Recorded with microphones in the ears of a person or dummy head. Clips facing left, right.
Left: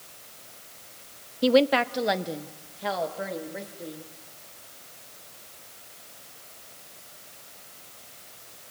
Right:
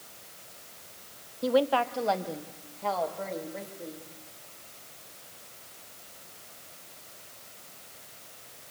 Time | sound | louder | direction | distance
1.4 | a woman speaking | left 5 dB | 45° left (ahead or behind) | 0.5 m